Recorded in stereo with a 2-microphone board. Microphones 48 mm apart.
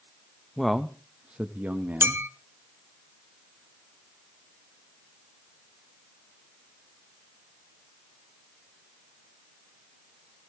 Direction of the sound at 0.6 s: 5° left (ahead or behind).